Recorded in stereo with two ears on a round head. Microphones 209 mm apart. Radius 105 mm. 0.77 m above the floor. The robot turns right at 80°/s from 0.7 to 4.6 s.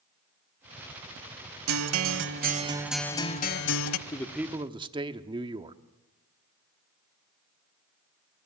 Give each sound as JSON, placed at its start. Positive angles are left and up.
{"t": 1.7, "sound": "a guitar", "azimuth_deg": -105, "distance_m": 1.1}
{"t": 4.1, "sound": "a man speaking", "azimuth_deg": 160, "distance_m": 1.2}